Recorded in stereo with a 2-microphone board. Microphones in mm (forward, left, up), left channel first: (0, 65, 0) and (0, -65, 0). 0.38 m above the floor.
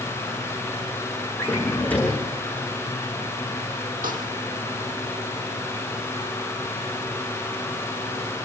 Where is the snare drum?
85° right, 5.5 m.